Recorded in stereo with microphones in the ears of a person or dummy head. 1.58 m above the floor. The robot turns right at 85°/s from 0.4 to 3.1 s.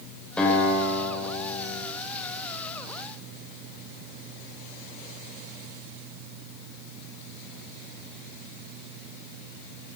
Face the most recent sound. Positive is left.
turn(degrees=-120)